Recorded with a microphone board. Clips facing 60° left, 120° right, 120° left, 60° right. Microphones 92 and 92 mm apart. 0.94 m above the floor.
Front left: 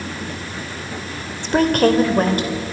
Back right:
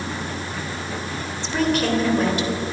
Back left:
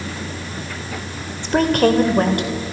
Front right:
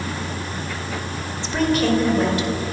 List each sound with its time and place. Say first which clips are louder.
1.4 s a woman speaking: front left 6 dB, back left 4 dB; 90° left, 3 m; by 2.7 s 95° left, 3.5 m